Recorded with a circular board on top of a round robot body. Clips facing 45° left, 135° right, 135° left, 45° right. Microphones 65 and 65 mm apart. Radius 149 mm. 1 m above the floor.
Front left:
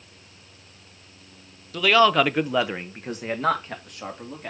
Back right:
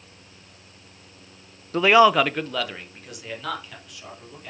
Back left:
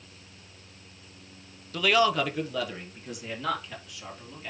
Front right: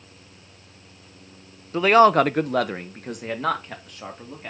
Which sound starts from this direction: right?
A man speaking, at 1.7 s.